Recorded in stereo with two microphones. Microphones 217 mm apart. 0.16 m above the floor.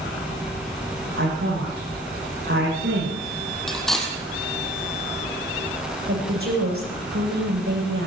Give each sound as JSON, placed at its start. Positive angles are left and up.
{"t": 1.2, "sound": "a woman speaking", "side_deg": -65, "distance_m": 9.5}
{"t": 3.7, "sound": "cutlery clinking", "side_deg": 0, "distance_m": 3.0}
{"t": 6.1, "sound": "a woman speaking", "side_deg": -80, "distance_m": 9.0}